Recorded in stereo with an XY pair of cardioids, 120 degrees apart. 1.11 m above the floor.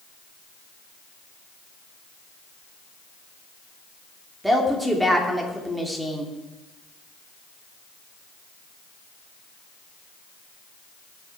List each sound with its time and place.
4.4 s a woman speaking: 5° right, 2.5 m